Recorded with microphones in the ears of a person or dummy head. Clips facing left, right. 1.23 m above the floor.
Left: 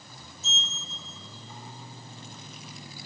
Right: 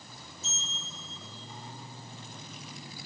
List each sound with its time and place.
0.4 s a sliding door: 75° left (ahead or behind), 2.0 m